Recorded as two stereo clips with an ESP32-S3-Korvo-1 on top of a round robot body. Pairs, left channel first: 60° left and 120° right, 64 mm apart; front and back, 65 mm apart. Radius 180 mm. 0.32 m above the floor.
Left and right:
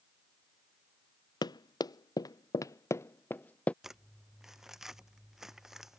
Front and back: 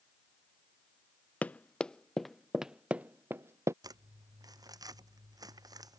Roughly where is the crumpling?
Behind left.